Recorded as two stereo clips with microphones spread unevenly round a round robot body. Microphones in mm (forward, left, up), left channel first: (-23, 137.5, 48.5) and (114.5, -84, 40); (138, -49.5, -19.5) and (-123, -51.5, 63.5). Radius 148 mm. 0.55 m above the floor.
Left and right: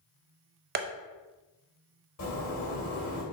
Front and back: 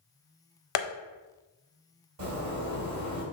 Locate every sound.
0.8 s tapping: straight ahead, 0.5 m
2.2 s a zipper: 155° left, 1.7 m